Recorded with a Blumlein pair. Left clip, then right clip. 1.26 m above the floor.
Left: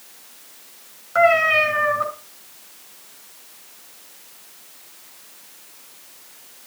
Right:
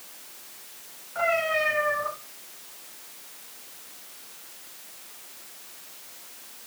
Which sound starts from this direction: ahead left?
A cat meowing, at 1.1 s.